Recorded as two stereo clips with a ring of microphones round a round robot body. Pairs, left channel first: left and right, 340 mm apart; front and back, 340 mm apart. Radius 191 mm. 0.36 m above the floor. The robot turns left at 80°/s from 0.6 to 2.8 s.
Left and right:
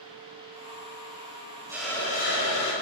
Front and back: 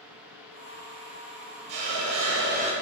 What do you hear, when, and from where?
1.7 s a hiss: 170° right, 2 m; by 2.7 s 110° left, 2 m